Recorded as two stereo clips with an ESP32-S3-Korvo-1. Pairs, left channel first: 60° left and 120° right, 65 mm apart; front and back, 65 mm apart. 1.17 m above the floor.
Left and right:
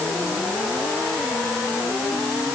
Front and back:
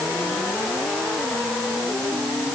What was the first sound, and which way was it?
Only background noise.